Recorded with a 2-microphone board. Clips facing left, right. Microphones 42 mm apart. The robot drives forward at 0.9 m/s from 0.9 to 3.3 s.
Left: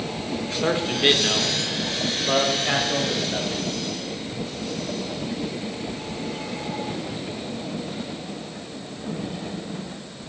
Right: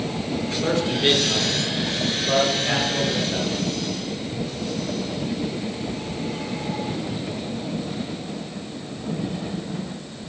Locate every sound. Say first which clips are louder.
0.6 s a man speaking: left 1 dB; 20° left (ahead or behind), 1.0 m; by 3.6 s 10° left (ahead or behind), 2.5 m